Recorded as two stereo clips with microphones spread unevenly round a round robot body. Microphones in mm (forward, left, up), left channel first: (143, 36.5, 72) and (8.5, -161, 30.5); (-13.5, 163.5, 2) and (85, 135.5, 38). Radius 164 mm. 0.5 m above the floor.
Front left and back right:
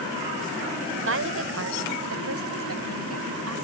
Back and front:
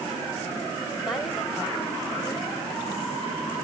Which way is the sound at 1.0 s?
115° right.